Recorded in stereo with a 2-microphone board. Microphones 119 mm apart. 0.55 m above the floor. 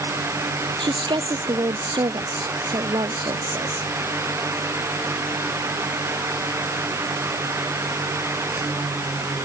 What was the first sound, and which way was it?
A woman speaking, 40° right (ahead or behind).